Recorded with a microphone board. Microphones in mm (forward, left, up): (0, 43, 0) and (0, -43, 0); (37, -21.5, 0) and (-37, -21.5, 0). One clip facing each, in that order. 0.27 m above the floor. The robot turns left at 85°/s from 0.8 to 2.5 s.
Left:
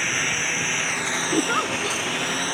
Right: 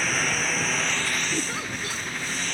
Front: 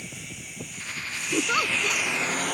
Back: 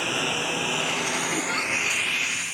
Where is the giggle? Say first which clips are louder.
Left 8 dB, front 2 dB; 80° left; by 2.0 s 15° left.